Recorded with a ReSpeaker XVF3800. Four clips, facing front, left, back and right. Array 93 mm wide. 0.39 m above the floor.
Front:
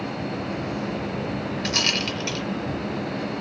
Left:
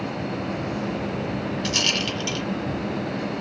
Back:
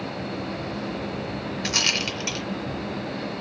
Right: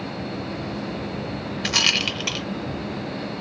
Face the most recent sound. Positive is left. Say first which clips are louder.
# right 1 dB, even
turn(degrees=-95)